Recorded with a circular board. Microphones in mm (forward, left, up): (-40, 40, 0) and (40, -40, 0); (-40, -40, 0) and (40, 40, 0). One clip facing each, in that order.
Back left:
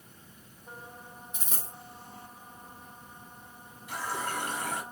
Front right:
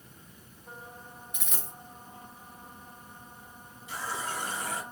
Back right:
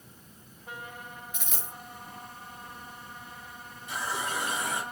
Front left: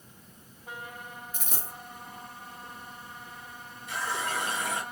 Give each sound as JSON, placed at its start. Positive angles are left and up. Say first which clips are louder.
{"t": 1.3, "sound": "a dropped coin", "louder": "even, front left 2 dB", "azimuth_deg": 85, "distance_m": 1.3}
{"t": 3.9, "sound": "a running tap", "louder": "back left 2 dB, front left 1 dB", "azimuth_deg": 155, "distance_m": 2.0}